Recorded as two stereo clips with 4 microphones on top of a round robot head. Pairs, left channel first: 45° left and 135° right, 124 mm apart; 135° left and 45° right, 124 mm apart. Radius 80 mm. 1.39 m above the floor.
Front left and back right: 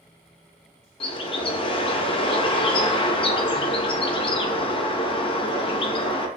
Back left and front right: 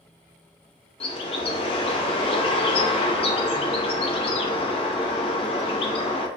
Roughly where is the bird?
Left.